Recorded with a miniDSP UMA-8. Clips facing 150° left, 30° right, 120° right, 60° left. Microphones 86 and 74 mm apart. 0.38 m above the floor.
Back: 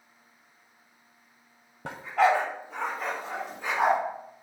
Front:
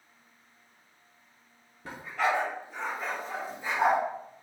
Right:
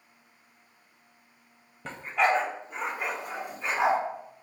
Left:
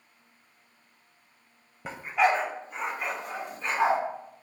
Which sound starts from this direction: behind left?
A dog barking, at 1.9 s.